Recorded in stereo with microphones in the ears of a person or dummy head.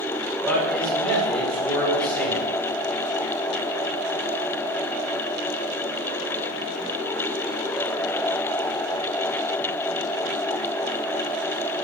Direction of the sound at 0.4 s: Centre (ahead or behind).